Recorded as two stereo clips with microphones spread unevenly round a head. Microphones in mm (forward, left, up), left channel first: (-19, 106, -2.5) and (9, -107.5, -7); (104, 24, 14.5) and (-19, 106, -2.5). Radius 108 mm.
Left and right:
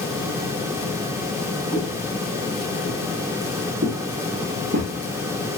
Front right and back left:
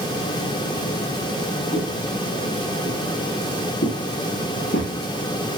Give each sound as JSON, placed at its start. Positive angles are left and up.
{"t": 1.7, "sound": "footsteps", "azimuth_deg": -40, "distance_m": 10.0}